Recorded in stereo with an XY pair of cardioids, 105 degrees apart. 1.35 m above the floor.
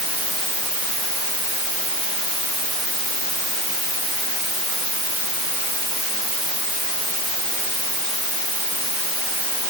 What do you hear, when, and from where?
Only background noise.